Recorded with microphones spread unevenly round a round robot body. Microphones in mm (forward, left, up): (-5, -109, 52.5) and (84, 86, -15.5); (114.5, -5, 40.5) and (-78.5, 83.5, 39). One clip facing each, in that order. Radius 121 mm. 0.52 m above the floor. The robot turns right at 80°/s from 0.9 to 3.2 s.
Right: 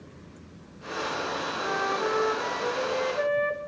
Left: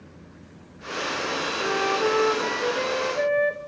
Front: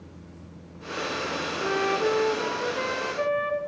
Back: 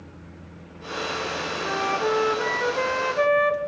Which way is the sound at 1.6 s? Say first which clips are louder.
Left 6 dB, front 2 dB; 20° left.